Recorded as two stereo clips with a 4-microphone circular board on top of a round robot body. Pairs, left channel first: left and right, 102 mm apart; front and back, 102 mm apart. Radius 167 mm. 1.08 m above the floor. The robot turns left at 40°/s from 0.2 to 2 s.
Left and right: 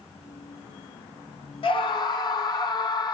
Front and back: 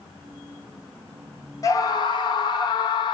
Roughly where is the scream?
Ahead left.